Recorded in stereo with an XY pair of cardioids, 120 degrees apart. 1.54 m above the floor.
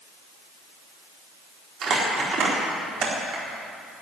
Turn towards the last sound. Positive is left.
turn(degrees=-50)